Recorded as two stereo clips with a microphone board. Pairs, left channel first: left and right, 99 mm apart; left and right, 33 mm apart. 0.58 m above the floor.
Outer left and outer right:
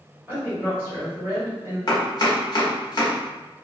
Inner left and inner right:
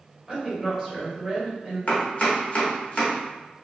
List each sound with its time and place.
0.3 s a woman speaking: 20° right (ahead or behind), 1.2 m
1.9 s chopping: 45° left (ahead or behind), 0.9 m